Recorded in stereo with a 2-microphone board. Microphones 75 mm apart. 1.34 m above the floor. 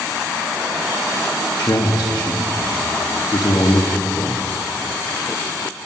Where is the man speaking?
50° left (ahead or behind), 0.9 m.